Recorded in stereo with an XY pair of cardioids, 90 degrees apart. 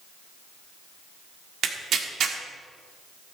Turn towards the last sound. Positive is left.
turn(degrees=-70)